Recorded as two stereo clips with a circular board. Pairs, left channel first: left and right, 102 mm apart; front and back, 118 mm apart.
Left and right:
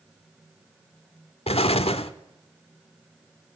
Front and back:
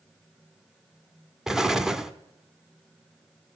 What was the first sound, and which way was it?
An explosion, 95° left.